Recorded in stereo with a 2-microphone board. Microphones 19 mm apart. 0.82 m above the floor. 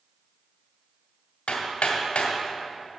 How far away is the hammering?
About 1.9 m.